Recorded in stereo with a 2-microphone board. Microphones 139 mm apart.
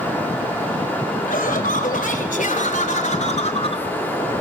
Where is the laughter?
85° left, 4.5 m; by 3.9 s 40° left (ahead or behind), 2.5 m.